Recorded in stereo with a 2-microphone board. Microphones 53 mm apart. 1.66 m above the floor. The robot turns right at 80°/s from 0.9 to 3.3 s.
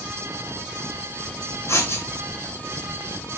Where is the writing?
65° left (ahead or behind), 3 m; by 2.0 s 40° left (ahead or behind), 3 m.